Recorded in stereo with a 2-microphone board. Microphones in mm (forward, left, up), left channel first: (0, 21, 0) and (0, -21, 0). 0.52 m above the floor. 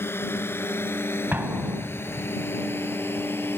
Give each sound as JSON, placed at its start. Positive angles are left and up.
{"t": 0.0, "sound": "a drone", "side_deg": 80}
{"t": 1.3, "sound": "an explosion", "side_deg": -50}